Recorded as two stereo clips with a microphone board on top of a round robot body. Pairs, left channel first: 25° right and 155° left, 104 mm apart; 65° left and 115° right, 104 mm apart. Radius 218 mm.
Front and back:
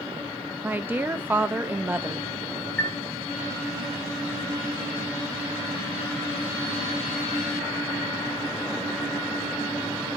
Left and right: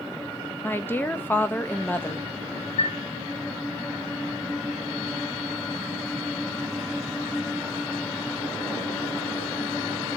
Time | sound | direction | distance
0.6 | a woman speaking | 110° left | 0.7 m
2.8 | a chime | 45° left | 0.8 m